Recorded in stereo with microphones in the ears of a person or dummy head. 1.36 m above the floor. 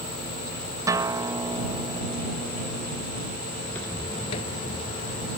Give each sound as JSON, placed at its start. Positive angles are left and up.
{"t": 0.9, "sound": "a guitar", "side_deg": -20}
{"t": 3.6, "sound": "footsteps", "side_deg": 5}